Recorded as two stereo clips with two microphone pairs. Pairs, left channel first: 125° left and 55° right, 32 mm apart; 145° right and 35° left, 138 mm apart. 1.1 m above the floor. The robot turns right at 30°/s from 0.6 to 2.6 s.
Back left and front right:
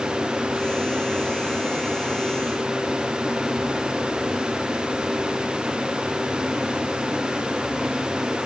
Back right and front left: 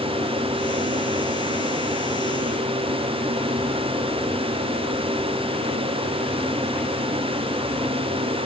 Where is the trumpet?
I don't hear a trumpet.